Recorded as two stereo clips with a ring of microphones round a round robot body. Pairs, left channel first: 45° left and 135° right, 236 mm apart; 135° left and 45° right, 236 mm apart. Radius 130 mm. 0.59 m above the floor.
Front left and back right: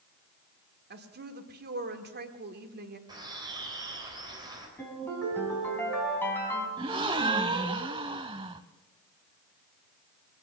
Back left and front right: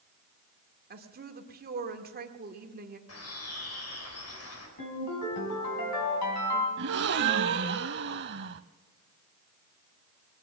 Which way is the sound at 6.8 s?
70° right.